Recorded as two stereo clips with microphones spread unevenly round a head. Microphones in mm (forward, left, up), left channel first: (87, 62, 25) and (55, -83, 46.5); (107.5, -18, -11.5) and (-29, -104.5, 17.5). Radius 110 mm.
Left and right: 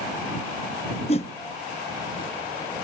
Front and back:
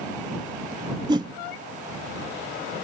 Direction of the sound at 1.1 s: 140° left.